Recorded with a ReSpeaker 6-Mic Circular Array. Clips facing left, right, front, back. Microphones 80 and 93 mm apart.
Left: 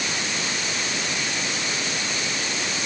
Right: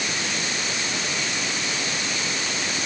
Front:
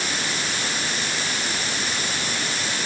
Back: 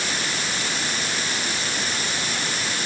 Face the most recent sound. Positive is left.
No sound to turn to.